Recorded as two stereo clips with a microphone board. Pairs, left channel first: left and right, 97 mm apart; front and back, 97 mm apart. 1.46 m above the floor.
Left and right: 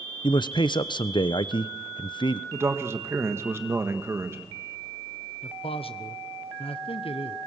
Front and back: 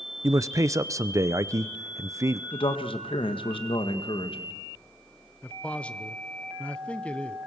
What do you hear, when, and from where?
0.2 s a man speaking: 125° left, 0.6 m
2.5 s a man speaking: 25° right, 1.5 m
5.4 s a man speaking: 80° left, 0.8 m